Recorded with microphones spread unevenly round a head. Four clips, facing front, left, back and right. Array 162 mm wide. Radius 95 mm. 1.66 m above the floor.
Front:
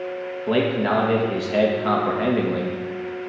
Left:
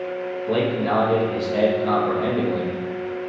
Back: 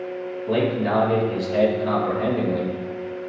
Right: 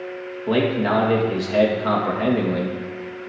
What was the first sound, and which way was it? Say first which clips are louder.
A man speaking: right 2 dB, front 1 dB; 40° right.